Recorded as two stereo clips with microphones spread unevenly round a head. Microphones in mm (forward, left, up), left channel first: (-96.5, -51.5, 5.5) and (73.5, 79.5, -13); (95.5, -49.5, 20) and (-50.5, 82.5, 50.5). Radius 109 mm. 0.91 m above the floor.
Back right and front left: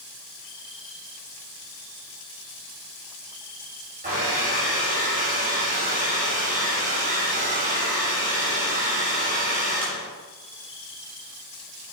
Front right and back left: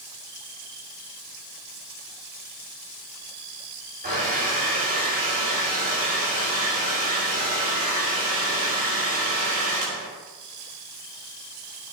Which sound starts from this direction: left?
A hair dryer, at 4.0 s.